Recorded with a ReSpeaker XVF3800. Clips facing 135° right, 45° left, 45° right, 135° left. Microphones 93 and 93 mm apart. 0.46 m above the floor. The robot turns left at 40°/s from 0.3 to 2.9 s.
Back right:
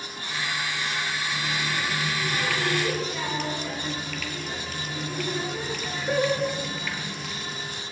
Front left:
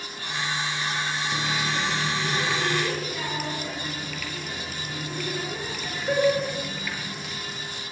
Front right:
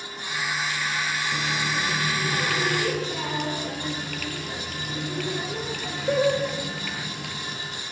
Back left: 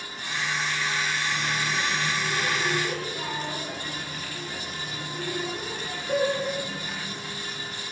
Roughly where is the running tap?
Ahead left.